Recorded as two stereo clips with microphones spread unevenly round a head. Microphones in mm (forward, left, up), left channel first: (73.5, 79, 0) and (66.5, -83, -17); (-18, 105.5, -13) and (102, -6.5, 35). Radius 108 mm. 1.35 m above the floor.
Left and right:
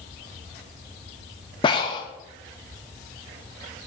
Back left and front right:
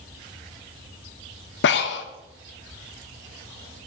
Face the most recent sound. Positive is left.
turn(degrees=140)